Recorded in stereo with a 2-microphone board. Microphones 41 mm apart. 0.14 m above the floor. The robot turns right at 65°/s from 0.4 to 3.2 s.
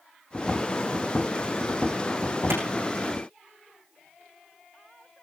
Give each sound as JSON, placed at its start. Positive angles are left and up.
{"t": 2.5, "sound": "a clap", "side_deg": -80, "distance_m": 6.5}